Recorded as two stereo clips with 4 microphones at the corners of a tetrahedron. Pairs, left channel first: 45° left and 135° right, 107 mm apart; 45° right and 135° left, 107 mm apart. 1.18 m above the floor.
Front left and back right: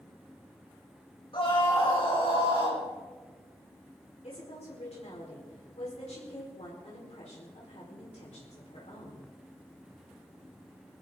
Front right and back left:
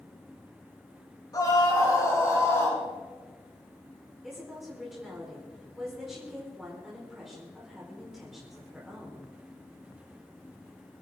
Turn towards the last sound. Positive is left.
turn(degrees=45)